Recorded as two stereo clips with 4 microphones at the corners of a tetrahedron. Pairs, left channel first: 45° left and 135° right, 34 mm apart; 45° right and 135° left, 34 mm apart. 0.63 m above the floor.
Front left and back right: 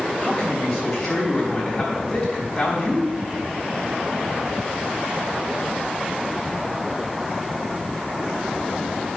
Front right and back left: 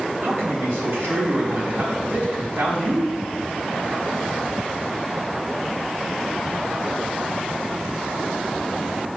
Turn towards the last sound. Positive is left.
turn(degrees=120)